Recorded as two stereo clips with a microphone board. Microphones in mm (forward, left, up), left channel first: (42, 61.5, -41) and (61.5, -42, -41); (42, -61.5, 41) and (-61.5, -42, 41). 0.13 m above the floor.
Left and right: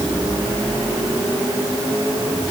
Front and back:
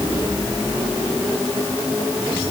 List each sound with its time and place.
Only background noise.